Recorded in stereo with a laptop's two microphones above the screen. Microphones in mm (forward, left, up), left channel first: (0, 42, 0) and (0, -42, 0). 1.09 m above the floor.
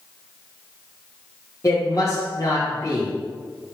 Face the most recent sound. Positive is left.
turn(degrees=40)  # may be behind; listen again after turning